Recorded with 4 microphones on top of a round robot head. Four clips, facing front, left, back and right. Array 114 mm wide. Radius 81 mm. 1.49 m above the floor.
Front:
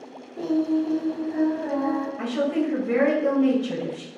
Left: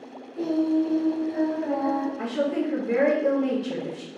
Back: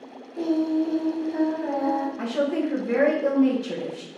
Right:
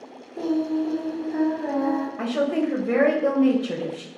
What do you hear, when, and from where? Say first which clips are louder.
0.3 s singing: left 1 dB, even; 125° right, 1.4 m
2.2 s a woman speaking: right 2 dB, even; 115° right, 1.3 m